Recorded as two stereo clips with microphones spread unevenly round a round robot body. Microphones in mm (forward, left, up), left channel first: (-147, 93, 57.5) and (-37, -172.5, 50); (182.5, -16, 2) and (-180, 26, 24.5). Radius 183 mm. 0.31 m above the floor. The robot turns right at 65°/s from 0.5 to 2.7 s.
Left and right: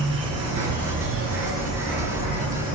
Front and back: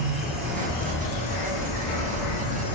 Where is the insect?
100° right, 2 m; by 2.8 s 45° left, 2 m.